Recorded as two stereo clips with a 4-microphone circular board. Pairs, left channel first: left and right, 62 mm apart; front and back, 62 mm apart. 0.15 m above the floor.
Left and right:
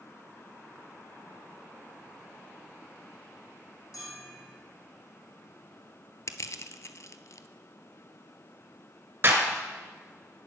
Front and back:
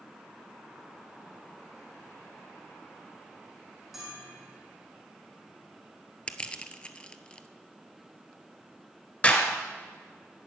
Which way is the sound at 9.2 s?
55° right.